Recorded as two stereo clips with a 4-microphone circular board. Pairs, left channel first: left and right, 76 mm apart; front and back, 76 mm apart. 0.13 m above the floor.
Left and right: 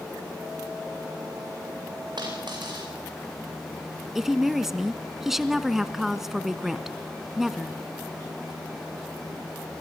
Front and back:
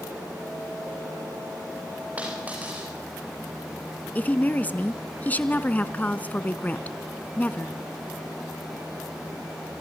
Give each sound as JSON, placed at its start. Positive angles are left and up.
{"t": 2.2, "sound": "a dropped coin", "azimuth_deg": -110, "distance_m": 9.0}
{"t": 4.2, "sound": "a woman speaking", "azimuth_deg": -10, "distance_m": 1.1}